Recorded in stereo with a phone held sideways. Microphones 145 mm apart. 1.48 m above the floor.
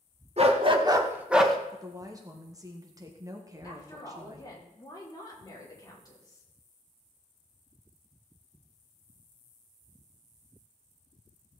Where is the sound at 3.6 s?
25° left (ahead or behind), 3.5 m.